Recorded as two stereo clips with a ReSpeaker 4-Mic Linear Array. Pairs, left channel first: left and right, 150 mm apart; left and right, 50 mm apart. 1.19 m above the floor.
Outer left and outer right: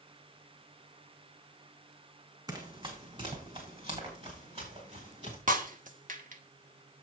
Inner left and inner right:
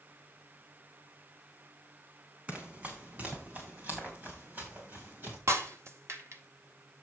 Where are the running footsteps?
30° right (ahead or behind), 3.5 m; by 5.4 s 45° right (ahead or behind), 7.5 m.